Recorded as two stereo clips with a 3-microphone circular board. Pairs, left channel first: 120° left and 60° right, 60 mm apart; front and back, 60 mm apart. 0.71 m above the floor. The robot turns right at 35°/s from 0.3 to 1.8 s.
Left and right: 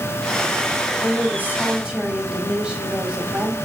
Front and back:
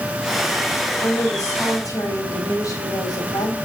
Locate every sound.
1.0 s a woman speaking: 10° right, 4 m; by 3.5 s 15° left, 4 m